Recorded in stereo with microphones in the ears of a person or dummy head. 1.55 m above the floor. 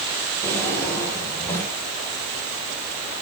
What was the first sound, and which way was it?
A drawer, 15° left (ahead or behind).